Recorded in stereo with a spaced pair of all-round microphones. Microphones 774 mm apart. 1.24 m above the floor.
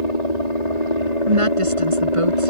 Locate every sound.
0.0 s a helicopter: 60° left (ahead or behind)
1.3 s a woman speaking: 40° right (ahead or behind)